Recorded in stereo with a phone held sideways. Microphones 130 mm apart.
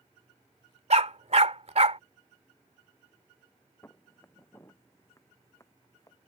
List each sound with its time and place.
0.9 s a dog barking: 55° right (ahead or behind)
3.8 s footsteps: 20° left (ahead or behind); by 6.2 s 25° left (ahead or behind)